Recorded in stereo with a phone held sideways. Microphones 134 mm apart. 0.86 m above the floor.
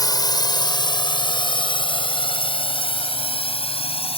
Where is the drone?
30° left (ahead or behind); by 4.2 s 45° left (ahead or behind).